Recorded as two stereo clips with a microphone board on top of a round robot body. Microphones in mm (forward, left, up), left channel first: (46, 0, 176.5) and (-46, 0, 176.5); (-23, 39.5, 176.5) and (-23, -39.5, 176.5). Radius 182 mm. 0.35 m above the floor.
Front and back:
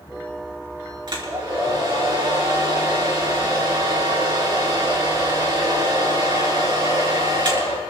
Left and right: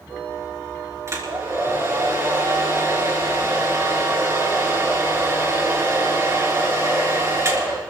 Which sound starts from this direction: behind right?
A hair dryer, at 1.1 s.